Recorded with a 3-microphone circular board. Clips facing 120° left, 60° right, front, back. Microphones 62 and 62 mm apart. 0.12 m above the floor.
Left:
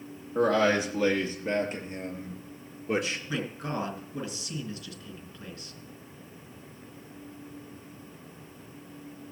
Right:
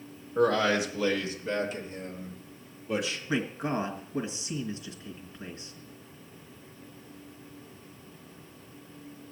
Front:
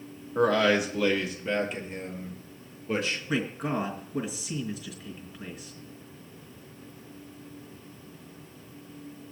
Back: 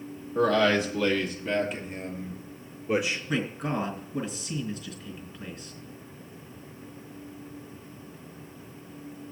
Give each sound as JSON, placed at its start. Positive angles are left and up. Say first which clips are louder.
{"t": 0.3, "sound": "a man speaking", "louder": "left 1 dB, even", "azimuth_deg": 80, "distance_m": 3.5}
{"t": 3.3, "sound": "a man speaking", "louder": "right 7 dB, front 1 dB", "azimuth_deg": -65, "distance_m": 1.7}